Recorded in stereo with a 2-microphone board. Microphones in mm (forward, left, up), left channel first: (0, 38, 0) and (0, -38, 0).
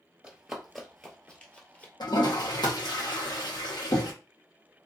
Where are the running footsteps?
10° right (ahead or behind), 1.2 m; by 1.9 s 20° left (ahead or behind), 1.5 m.